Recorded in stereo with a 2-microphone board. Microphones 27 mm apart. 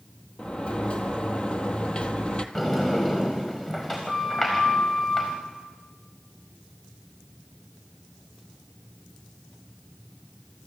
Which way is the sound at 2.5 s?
20° left (ahead or behind).